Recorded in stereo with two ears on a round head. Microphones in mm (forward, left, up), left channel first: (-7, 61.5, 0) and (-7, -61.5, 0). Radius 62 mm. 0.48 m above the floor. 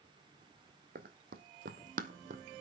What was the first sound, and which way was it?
Running footsteps, 65° right (ahead or behind).